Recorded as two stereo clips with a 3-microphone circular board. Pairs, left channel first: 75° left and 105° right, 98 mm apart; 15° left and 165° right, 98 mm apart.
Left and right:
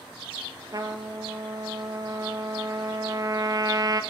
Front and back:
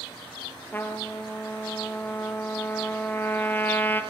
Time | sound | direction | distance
0.7 | a trumpet | 55° right | 1.0 m